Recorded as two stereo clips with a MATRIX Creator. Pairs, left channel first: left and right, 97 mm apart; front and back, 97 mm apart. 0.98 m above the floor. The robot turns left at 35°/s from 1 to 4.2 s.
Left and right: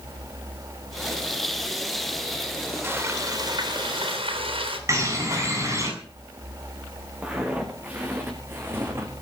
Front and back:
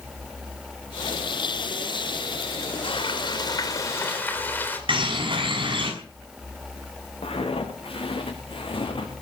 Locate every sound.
2.8 s frying: 25° right, 3.5 m; by 4.8 s 70° right, 3.5 m
4.9 s a bird: 150° right, 6.5 m
7.2 s footsteps: 15° right, 5.5 m; by 9.1 s 30° right, 4 m